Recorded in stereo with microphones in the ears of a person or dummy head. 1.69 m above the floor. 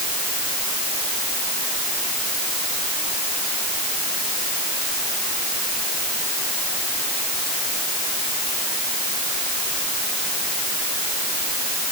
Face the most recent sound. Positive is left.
No sound to turn to.